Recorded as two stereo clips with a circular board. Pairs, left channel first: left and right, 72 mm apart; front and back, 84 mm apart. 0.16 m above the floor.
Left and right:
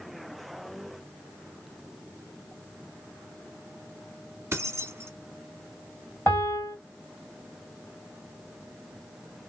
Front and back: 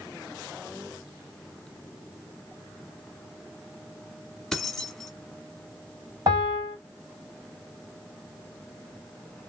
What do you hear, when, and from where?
4.5 s keys jangling: 80° right, 1.0 m
6.3 s a piano: 150° left, 2.5 m